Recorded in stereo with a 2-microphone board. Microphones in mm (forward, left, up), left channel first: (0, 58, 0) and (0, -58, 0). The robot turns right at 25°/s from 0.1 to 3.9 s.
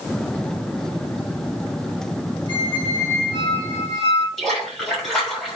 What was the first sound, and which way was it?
A squeak, 140° left.